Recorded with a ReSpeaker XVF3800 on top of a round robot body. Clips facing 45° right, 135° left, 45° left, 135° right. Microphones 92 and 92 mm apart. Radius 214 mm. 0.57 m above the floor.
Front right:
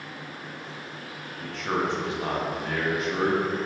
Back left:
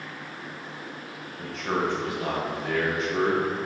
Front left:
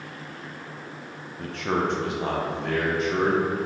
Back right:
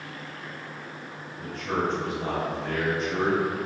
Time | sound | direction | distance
1.4 | a man speaking | 60° left | 1.2 m